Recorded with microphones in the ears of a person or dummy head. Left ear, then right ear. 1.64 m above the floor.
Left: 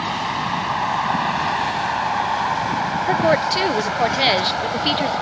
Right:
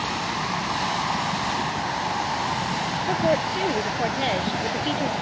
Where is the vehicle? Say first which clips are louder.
Left 4 dB; 80° left; by 5.2 s 75° left (ahead or behind).